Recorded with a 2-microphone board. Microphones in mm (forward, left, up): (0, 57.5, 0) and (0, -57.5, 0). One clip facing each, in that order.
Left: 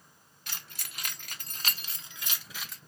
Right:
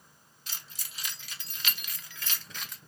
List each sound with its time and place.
0.5 s keys jangling: 60° left (ahead or behind), 0.9 m; by 2.8 s centre (ahead or behind), 0.8 m